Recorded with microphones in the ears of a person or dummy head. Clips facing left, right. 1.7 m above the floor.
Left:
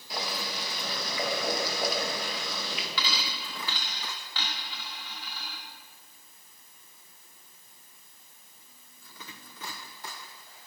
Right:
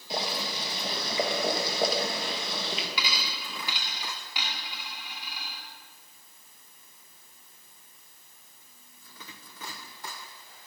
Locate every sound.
0.1 s boiling: 25° right (ahead or behind), 1.7 m
3.0 s a dropped coin: 20° right (ahead or behind), 2 m